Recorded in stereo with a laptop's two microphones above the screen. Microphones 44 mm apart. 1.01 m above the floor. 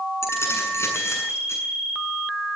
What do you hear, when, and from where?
0.2 s keys jangling: 80° left, 8 m